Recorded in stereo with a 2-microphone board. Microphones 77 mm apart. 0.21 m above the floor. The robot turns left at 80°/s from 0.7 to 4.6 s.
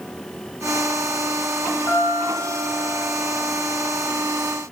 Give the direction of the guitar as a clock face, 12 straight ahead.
11 o'clock.